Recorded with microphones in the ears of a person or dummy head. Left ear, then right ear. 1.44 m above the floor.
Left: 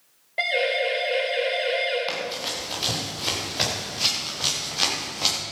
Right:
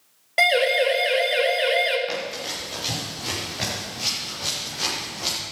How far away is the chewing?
I don't hear chewing.